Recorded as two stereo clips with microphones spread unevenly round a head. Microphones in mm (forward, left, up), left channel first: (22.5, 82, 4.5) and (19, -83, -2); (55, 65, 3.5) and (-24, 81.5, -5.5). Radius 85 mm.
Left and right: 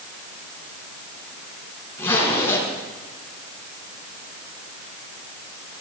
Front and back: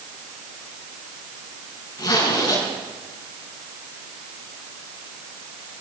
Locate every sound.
2.0 s a zipper: 15° left, 5.5 m